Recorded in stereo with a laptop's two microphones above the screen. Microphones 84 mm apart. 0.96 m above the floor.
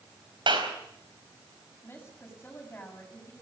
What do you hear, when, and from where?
0.5 s a clap: 70° right (ahead or behind), 4 m
1.8 s a woman speaking: 20° left (ahead or behind), 6.5 m